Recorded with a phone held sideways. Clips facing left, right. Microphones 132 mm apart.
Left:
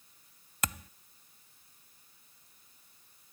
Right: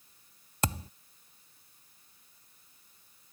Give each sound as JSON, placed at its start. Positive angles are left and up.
{"t": 0.6, "sound": "a thud", "side_deg": -30}